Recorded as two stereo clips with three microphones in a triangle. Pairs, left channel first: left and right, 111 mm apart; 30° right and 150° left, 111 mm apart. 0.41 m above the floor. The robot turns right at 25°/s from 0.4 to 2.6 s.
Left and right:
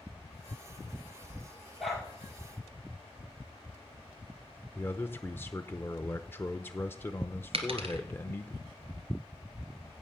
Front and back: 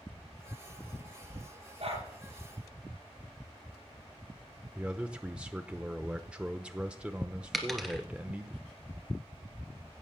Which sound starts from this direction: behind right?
A dropped coin, at 7.5 s.